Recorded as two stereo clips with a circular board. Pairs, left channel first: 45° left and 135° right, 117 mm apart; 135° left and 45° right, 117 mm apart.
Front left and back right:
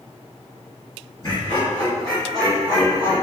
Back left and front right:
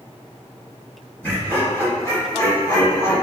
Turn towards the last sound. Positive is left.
turn(degrees=165)